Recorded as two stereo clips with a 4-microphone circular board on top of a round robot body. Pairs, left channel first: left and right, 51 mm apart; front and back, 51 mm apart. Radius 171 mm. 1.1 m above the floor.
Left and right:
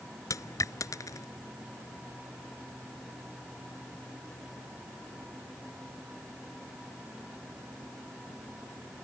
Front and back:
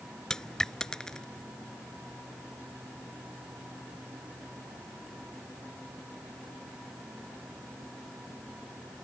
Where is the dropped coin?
80° left.